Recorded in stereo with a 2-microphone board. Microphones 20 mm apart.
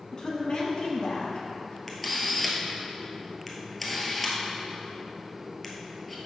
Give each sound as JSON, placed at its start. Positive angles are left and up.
{"t": 0.1, "sound": "a woman speaking", "side_deg": 35, "distance_m": 1.4}
{"t": 1.9, "sound": "a camera shutter", "side_deg": 5, "distance_m": 1.1}